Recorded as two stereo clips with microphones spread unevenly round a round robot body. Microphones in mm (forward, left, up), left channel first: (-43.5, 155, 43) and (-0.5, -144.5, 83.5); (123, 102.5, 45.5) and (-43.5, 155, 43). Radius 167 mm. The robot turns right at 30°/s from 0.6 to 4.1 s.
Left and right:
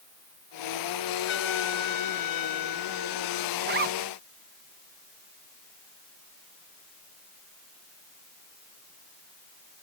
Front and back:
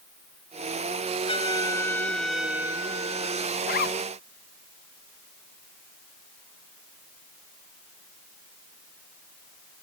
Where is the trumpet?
40° left; by 3.5 s 110° left.